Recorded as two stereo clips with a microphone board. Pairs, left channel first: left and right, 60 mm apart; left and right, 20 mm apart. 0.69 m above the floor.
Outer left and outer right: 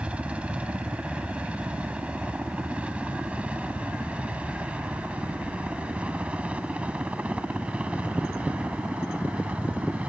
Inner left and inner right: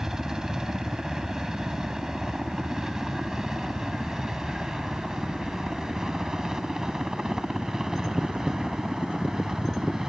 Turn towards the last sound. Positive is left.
turn(degrees=-20)  # may be behind; listen again after turning